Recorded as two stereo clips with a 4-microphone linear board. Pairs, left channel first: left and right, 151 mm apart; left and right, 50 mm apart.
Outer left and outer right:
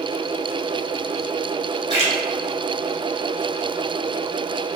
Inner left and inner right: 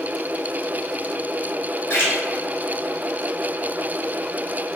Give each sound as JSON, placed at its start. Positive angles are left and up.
{"t": 1.9, "sound": "a splash", "side_deg": 45, "distance_m": 1.3}